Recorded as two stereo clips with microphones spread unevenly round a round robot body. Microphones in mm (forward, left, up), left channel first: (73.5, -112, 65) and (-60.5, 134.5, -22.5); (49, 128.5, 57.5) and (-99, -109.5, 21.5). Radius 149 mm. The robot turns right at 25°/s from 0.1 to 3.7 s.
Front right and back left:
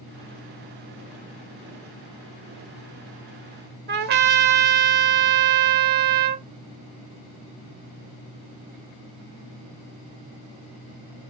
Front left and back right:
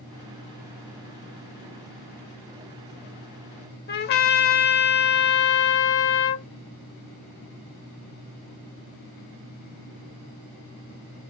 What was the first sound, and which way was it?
A trumpet, 55° left.